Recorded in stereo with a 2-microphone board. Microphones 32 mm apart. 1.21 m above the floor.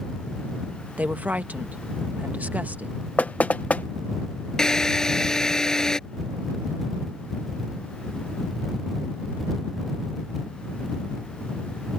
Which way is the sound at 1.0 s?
50° right (ahead or behind).